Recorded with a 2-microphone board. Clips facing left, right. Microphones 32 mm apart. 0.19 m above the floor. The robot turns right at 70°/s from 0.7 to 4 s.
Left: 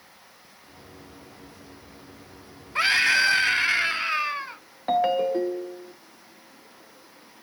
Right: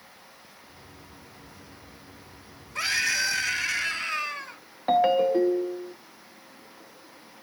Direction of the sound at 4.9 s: 5° right (ahead or behind).